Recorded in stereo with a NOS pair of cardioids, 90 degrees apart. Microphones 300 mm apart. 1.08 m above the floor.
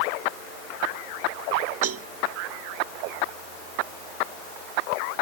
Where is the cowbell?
50° right.